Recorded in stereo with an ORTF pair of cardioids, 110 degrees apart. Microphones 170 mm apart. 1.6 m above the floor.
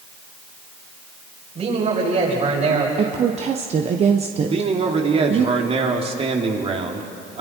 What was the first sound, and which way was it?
A man speaking, 40° right.